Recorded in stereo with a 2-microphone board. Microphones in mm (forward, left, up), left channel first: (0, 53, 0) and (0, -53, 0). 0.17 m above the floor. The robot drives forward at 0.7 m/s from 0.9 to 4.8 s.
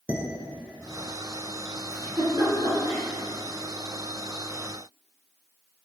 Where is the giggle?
40° right (ahead or behind), 2.5 m; by 3.0 s 35° right (ahead or behind), 2.5 m.